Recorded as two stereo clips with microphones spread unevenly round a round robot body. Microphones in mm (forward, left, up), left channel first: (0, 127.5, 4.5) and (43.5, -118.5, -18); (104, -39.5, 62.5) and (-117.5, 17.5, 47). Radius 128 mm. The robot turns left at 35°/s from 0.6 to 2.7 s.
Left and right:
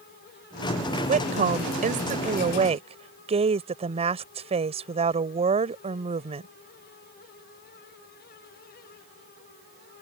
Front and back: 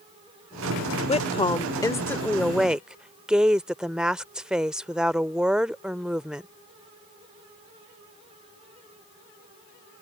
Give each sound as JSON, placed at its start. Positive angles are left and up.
{"t": 1.1, "sound": "a woman speaking", "azimuth_deg": -60}